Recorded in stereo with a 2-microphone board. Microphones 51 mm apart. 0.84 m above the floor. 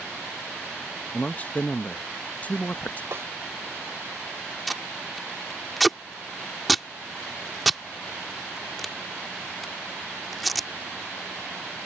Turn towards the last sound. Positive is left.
turn(degrees=0)  # may be behind; listen again after turning